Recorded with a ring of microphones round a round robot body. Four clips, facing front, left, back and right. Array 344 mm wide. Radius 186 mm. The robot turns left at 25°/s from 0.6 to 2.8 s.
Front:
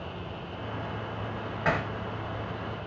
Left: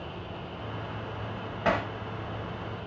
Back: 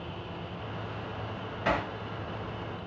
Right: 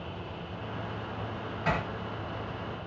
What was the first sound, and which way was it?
Hammering, 75° left.